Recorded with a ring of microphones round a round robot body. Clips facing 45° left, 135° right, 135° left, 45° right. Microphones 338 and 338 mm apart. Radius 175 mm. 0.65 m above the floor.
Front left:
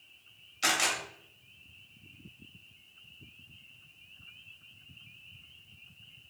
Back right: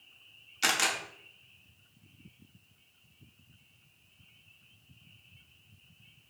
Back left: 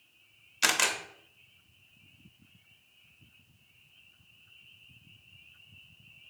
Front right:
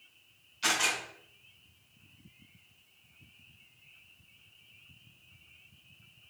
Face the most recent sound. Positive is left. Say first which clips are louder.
# even, back left 2 dB
turn(degrees=150)